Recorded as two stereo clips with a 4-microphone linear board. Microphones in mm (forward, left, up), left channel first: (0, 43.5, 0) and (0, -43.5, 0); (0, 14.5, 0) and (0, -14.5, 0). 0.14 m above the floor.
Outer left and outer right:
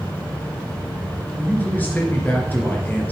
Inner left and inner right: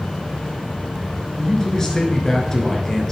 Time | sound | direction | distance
1.4 | a man speaking | 20° left (ahead or behind) | 2.0 m